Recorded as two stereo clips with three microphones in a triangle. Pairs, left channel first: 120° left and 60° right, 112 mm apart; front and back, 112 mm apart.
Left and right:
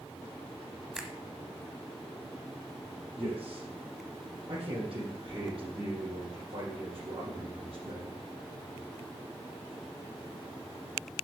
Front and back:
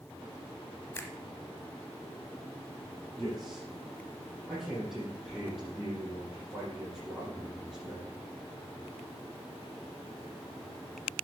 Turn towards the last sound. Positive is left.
turn(degrees=-90)